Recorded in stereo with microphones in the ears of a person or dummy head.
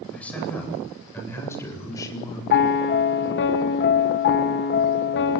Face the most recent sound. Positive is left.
turn(degrees=55)  # may be behind; listen again after turning